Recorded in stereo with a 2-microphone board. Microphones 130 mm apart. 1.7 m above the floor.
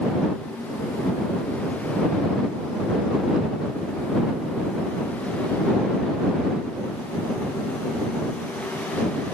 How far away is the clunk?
I don't hear a clunk.